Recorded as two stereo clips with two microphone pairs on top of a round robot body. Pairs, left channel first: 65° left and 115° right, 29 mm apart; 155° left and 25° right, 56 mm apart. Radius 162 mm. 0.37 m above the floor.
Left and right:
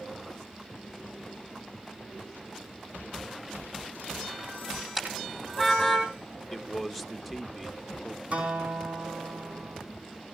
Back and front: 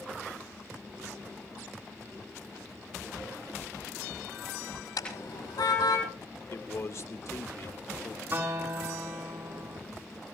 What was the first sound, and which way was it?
A car horn, 165° left.